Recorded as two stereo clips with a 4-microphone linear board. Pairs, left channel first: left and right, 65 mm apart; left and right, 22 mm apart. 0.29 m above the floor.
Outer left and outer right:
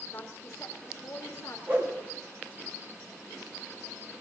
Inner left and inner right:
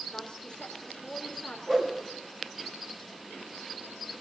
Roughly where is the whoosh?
Right.